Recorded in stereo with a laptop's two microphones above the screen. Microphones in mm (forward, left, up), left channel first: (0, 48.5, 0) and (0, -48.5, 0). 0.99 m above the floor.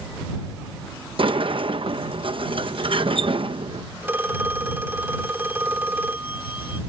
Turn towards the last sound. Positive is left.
turn(degrees=-20)  # may be behind; listen again after turning